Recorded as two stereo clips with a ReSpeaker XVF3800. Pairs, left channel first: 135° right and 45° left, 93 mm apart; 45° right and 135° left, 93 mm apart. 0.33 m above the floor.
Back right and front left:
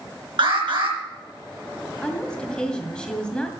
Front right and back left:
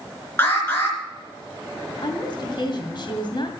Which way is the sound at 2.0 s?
55° right.